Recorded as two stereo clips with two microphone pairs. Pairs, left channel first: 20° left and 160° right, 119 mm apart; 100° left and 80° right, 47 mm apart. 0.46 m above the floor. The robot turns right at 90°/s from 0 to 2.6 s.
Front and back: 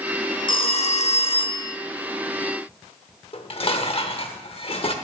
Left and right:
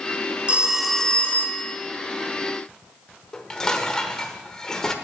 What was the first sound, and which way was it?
A phone ringing, 25° right.